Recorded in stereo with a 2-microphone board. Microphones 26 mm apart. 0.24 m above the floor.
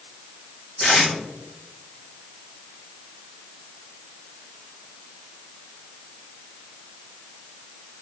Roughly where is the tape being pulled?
Left.